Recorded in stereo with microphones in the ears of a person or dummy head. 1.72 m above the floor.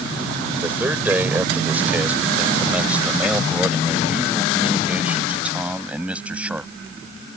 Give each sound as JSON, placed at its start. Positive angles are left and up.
{"t": 0.6, "sound": "a man speaking", "side_deg": -5}